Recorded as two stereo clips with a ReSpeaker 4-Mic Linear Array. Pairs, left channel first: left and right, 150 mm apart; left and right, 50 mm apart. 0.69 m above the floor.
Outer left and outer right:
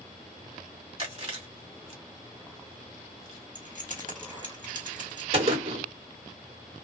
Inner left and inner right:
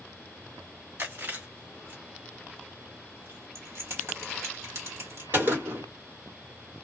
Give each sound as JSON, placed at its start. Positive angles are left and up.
{"t": 1.0, "sound": "chewing", "side_deg": -40, "distance_m": 1.8}
{"t": 3.5, "sound": "keys jangling", "side_deg": -60, "distance_m": 1.5}
{"t": 5.3, "sound": "a gunshot", "side_deg": -40, "distance_m": 1.5}